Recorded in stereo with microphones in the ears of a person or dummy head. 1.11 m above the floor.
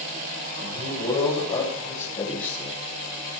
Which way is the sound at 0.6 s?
30° left (ahead or behind).